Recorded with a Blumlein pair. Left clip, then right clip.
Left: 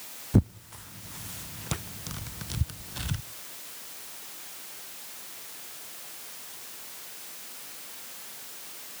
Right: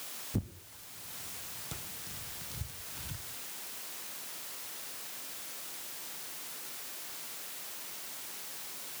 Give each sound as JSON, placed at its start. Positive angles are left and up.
{"t": 0.3, "sound": "tearing paper", "azimuth_deg": 30, "distance_m": 0.6}